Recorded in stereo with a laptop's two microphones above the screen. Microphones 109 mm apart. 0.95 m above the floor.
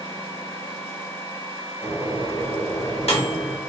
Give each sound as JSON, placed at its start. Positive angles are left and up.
{"t": 1.8, "sound": "a microwave", "side_deg": 65, "distance_m": 1.3}